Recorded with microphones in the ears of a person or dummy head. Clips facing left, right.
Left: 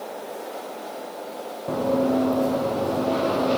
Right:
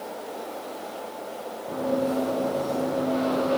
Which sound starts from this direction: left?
Running footsteps, at 1.7 s.